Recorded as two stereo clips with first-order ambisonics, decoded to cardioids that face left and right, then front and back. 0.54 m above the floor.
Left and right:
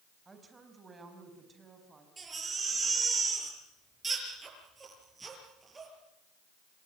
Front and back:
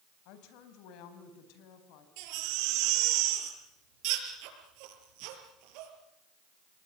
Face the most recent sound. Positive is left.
turn(degrees=-165)